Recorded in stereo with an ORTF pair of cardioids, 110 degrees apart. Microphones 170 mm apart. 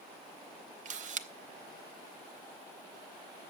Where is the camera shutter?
50° right, 0.8 m.